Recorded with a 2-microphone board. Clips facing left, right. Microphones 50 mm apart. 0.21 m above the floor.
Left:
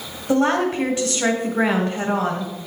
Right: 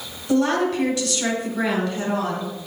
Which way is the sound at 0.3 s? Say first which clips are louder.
Left 1 dB; 25° left (ahead or behind).